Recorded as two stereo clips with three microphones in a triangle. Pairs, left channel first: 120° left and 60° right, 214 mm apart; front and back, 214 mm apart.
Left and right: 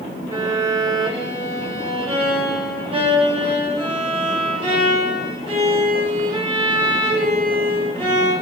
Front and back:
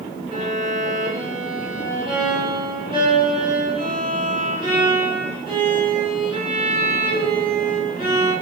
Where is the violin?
120° right, 0.9 m.